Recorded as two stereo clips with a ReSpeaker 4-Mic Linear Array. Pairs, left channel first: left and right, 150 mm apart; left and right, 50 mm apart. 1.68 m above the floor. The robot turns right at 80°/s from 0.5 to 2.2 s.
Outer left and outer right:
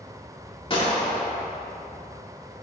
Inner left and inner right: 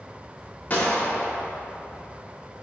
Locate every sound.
0.7 s a gunshot: 95° left, 1.4 m; by 1.3 s 145° left, 1.4 m